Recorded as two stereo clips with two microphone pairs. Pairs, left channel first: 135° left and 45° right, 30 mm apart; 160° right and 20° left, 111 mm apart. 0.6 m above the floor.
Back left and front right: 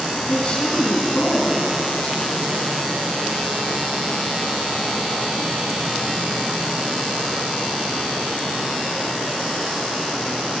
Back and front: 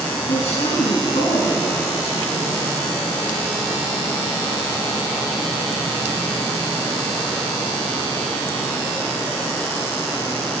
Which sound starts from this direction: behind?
A woman speaking, at 0.3 s.